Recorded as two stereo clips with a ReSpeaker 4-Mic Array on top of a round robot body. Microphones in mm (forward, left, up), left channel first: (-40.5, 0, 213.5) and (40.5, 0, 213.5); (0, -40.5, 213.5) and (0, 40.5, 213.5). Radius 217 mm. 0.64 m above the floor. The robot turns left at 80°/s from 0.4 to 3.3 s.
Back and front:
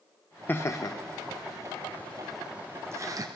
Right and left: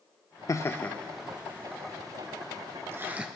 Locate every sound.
0.5 s laughter: 120° right, 0.7 m; by 3.3 s 15° left, 0.7 m